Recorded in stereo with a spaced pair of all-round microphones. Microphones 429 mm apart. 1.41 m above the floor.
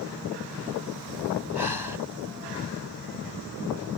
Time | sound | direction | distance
1.6 | breathing | 60° left (ahead or behind) | ?